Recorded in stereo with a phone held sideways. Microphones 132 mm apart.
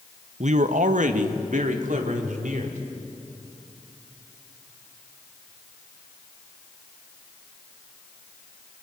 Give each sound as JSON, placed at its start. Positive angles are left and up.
{"t": 0.4, "sound": "a man speaking", "side_deg": -65, "distance_m": 0.9}